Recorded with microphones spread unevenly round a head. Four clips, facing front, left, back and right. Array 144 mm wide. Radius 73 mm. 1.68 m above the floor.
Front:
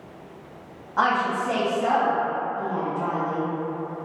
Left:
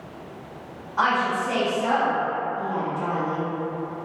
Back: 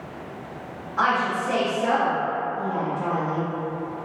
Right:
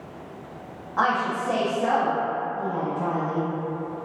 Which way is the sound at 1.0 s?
35° right.